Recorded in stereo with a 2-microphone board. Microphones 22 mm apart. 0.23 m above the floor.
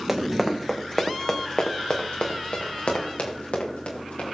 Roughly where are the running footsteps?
Right.